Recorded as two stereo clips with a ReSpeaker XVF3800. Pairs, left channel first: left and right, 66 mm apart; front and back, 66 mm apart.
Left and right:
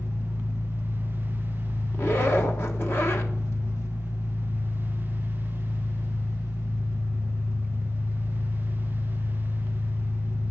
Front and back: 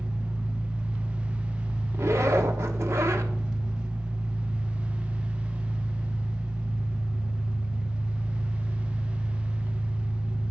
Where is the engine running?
110° left, 1.2 m.